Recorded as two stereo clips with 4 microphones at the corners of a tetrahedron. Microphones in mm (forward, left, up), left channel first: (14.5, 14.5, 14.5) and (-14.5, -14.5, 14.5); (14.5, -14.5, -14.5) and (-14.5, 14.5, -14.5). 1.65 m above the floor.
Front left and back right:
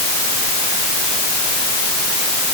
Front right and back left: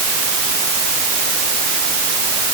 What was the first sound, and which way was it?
Only background noise.